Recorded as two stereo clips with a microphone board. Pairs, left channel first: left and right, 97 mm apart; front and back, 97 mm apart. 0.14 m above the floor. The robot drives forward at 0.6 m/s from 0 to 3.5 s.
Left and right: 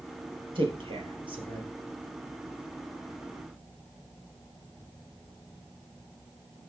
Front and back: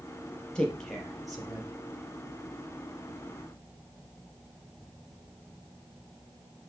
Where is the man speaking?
80° right, 3 m; by 1.7 s 95° right, 3 m.